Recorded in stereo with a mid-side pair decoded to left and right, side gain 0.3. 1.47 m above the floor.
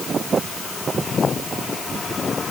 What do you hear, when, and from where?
Only background noise.